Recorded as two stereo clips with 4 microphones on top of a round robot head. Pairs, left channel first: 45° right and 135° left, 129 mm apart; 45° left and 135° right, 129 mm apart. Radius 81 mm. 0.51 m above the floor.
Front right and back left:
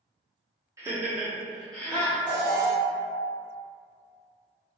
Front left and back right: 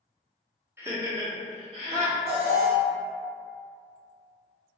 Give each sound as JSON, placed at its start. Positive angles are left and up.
{"t": 0.8, "sound": "laughter", "azimuth_deg": 175, "distance_m": 1.0}
{"t": 2.3, "sound": "an alarm", "azimuth_deg": -105, "distance_m": 1.9}